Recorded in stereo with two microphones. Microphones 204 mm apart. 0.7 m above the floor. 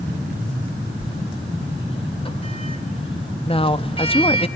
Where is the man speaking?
25° left (ahead or behind), 0.9 m.